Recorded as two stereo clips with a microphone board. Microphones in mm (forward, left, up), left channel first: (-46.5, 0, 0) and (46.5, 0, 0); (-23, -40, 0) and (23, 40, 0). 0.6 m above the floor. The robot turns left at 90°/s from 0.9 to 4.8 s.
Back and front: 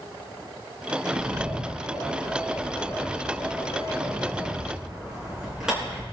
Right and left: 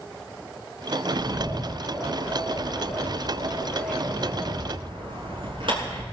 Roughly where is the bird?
Ahead left.